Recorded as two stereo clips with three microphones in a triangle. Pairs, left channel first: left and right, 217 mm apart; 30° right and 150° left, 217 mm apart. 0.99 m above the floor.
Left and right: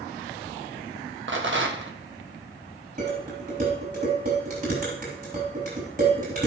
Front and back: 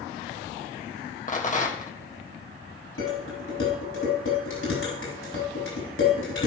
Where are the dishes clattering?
40° right, 6 m.